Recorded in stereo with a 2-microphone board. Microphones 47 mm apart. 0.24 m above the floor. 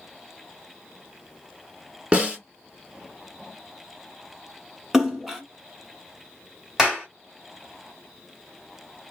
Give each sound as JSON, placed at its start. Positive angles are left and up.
{"t": 2.1, "sound": "a snare drum", "side_deg": -25, "distance_m": 1.0}
{"t": 4.9, "sound": "a splash", "side_deg": -10, "distance_m": 0.8}
{"t": 6.8, "sound": "a clap", "side_deg": -15, "distance_m": 1.3}